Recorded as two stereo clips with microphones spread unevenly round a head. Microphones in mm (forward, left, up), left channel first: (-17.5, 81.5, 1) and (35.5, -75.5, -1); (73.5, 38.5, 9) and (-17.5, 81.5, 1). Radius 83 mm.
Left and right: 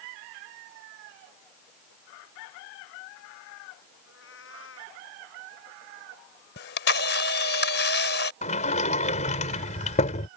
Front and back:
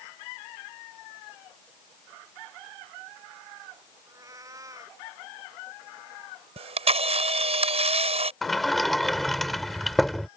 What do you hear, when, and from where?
4.1 s a cat meowing: 100° left
6.6 s a camera shutter: 135° left
8.4 s a sliding door: 60° left